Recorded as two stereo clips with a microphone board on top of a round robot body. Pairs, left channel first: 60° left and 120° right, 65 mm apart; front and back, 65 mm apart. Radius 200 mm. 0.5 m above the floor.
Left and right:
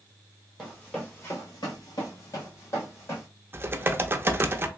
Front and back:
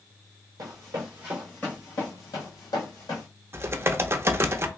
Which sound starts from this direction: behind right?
Typing on a keyboard, at 3.5 s.